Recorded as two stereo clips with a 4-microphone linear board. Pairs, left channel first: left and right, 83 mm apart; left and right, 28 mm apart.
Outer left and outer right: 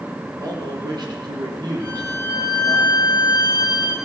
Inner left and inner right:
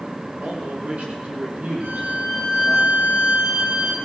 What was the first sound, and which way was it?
A man speaking, 50° right (ahead or behind).